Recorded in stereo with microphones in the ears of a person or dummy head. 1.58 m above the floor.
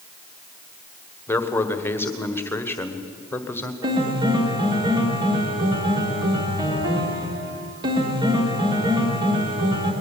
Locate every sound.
1.3 s a man speaking: 15° left (ahead or behind), 1.4 m
3.8 s a piano: 25° right (ahead or behind), 1.8 m